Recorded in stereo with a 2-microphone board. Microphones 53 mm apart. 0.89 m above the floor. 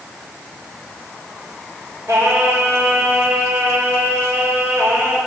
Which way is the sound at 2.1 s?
70° right (ahead or behind).